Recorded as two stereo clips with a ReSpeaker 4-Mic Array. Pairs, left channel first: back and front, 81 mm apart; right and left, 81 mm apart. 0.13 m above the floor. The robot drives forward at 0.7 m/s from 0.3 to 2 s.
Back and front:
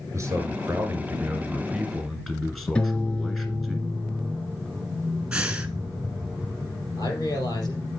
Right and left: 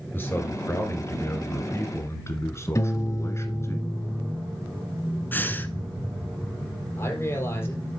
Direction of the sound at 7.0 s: 150° right.